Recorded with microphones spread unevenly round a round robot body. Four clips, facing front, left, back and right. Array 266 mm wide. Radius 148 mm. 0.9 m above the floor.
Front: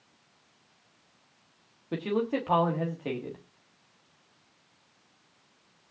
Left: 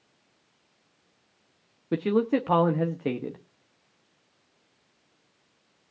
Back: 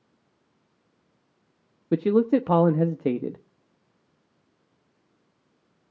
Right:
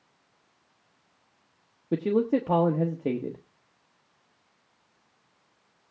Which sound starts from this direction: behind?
A man speaking, at 1.9 s.